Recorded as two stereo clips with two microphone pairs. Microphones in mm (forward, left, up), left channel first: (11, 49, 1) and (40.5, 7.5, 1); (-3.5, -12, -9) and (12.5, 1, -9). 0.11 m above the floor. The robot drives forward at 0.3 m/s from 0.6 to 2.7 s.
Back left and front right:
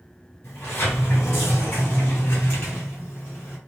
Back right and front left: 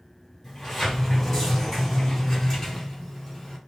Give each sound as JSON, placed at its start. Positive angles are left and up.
{"t": 0.4, "sound": "a sliding door", "azimuth_deg": 150, "distance_m": 2.5}